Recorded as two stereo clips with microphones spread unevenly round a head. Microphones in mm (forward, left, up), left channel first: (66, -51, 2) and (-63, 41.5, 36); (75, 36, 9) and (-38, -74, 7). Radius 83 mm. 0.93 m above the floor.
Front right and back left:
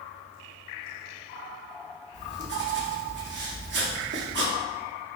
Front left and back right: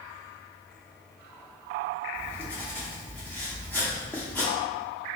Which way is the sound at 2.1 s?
125° left.